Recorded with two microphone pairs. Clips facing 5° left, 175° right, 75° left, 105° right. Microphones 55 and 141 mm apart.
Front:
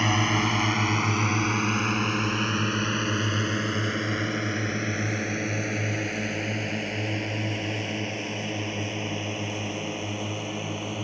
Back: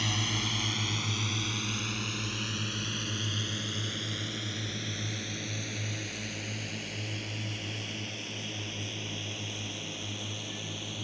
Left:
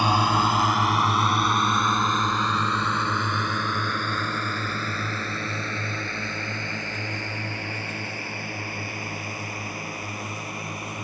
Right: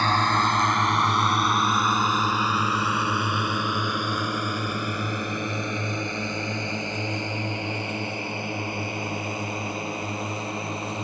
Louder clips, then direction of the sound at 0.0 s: Front 10 dB, left 1 dB; straight ahead.